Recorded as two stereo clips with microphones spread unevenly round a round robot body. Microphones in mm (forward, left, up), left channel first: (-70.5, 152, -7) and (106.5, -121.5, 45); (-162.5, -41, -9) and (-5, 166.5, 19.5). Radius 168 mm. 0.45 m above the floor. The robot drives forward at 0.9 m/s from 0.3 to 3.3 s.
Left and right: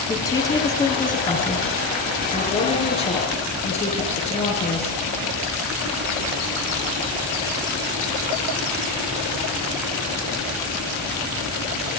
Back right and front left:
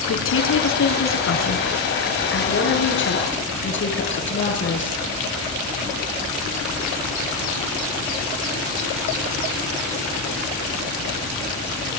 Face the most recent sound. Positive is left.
turn(degrees=-165)